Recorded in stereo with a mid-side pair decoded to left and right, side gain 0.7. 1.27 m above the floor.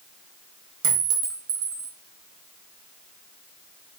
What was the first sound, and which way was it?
A clink, 65° right.